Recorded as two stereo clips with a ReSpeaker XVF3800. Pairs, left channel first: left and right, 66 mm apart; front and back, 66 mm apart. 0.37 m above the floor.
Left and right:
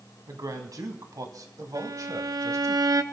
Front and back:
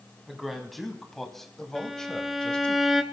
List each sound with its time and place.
0.3 s a man speaking: 90° right, 2.5 m; by 2.8 s 70° right, 1.6 m
1.8 s a violin: 95° right, 0.8 m